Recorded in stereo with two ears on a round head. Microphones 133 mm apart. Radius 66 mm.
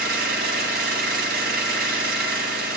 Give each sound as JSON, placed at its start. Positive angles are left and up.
{"t": 0.0, "sound": "an engine running", "side_deg": -70, "distance_m": 2.5}